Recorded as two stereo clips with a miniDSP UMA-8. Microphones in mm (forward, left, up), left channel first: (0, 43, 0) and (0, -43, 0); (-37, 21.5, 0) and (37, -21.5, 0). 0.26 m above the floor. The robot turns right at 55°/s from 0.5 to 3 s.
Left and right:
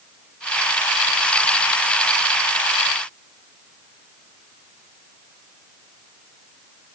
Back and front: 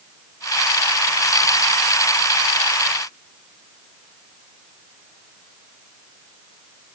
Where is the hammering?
No hammering in this recording.